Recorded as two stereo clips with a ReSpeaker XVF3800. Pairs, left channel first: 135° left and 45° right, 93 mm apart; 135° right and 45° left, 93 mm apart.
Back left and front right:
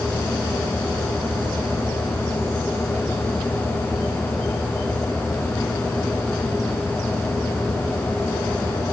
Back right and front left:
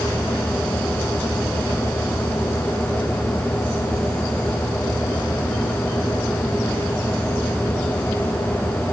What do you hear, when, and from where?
Only background noise.